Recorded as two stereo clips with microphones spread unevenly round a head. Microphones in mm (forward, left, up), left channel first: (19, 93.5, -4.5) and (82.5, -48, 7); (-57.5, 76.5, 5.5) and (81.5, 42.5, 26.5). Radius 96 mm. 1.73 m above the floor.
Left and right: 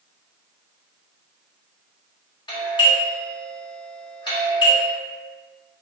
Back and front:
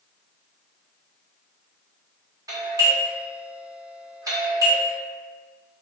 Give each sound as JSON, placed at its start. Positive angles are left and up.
{"t": 2.5, "sound": "a doorbell", "azimuth_deg": 50, "distance_m": 1.4}